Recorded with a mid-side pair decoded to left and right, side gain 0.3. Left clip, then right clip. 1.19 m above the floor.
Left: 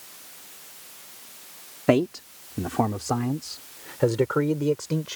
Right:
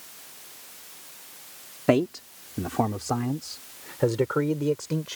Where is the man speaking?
10° left; by 5.2 s 15° left.